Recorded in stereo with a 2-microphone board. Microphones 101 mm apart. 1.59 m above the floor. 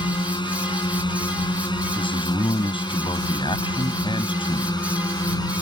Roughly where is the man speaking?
Left.